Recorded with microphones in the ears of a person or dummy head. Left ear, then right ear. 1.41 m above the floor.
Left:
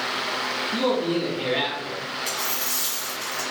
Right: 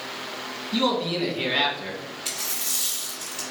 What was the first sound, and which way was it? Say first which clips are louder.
A man speaking: right 2 dB; 65° right (ahead or behind).